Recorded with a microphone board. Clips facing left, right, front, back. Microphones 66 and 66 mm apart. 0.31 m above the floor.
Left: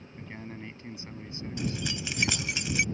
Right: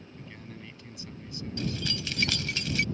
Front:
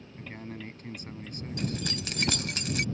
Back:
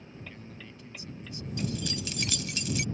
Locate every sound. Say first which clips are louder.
0.2 s a man speaking: left 5 dB, front 7 dB; 35° left
1.6 s keys jangling: even, even; 20° left